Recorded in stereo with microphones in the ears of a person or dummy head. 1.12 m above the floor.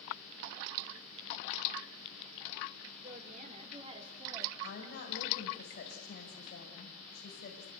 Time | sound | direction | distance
3.0 | a woman speaking | 45° right (ahead or behind) | 3.5 m
4.6 | a woman speaking | 55° left (ahead or behind) | 5.5 m